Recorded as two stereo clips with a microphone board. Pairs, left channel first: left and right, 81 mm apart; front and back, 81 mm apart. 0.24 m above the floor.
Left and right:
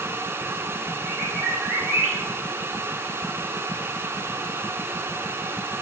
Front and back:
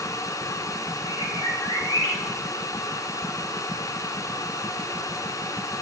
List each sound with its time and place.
1.1 s a bird: 15° right, 3 m